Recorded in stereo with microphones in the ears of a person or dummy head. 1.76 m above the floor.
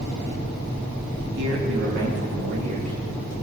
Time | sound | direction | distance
1.4 | a man speaking | 70° right (ahead or behind) | 4 m